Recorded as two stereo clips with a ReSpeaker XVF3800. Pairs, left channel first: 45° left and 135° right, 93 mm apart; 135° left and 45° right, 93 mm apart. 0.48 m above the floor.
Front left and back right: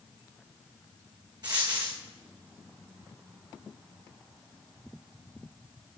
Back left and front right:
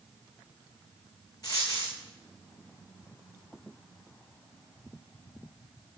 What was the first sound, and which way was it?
A dropped coin, 175° right.